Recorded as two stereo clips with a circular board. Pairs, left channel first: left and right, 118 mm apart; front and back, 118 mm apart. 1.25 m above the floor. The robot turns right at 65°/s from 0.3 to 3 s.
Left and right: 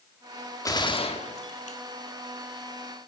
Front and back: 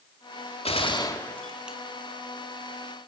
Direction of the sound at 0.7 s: 30° left.